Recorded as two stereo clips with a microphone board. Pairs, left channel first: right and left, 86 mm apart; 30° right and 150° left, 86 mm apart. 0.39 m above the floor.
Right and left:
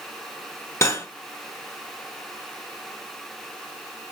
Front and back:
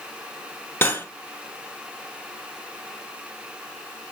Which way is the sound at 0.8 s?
75° right.